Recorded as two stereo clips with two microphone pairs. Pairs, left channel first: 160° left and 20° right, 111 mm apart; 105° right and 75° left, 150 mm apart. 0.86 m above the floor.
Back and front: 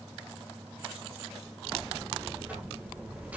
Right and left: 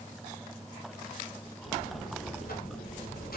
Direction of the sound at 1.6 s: 95° right.